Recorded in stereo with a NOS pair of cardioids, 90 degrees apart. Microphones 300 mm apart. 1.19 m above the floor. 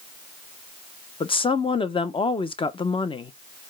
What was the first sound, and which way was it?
A woman speaking, 15° left.